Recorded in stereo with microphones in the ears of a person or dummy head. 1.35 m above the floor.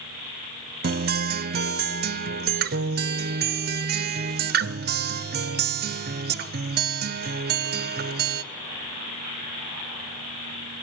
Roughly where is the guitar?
Right.